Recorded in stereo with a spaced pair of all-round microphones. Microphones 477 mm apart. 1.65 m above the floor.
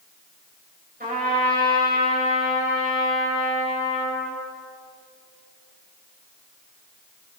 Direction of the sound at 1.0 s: 15° right (ahead or behind).